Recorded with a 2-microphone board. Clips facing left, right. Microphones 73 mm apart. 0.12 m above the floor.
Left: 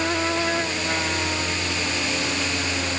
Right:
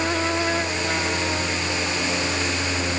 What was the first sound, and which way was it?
Only background noise.